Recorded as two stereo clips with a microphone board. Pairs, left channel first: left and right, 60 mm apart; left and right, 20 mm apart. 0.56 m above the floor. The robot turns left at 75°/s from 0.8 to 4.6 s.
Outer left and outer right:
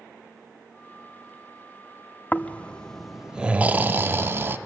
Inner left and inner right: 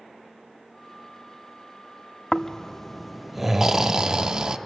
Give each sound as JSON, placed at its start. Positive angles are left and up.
{"t": 2.3, "sound": "snoring", "azimuth_deg": 60, "distance_m": 0.5}